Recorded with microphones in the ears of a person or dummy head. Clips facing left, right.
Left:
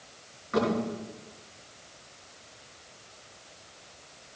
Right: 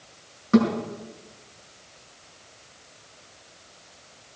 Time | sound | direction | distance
0.5 | a thud | 55° right (ahead or behind) | 6.5 m